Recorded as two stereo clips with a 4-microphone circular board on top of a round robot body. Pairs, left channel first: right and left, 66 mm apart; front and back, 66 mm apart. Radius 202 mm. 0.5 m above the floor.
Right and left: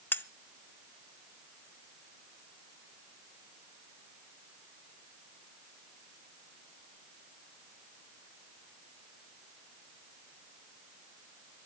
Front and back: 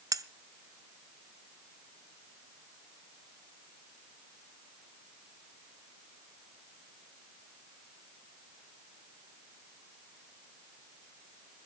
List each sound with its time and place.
0.1 s cutlery clinking: 150° right, 0.7 m